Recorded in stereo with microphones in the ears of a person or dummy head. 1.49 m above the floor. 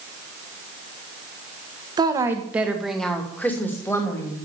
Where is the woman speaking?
25° right (ahead or behind), 1.6 m; by 4.4 s 15° left (ahead or behind), 3 m.